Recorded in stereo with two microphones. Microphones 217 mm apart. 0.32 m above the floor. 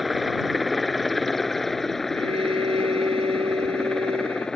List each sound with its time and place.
0.0 s a helicopter: centre (ahead or behind); by 4.6 s 5° left (ahead or behind)
2.1 s a violin: 25° right (ahead or behind)